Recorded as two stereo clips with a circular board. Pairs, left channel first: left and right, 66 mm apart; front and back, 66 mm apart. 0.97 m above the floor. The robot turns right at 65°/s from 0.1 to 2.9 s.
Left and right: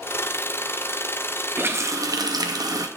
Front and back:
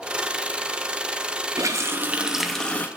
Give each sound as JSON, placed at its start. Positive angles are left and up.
{"t": 1.6, "sound": "a running tap", "azimuth_deg": -150, "distance_m": 0.5}